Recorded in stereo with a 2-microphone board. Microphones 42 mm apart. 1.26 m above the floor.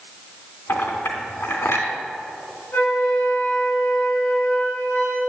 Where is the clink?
75° left (ahead or behind), 3 m.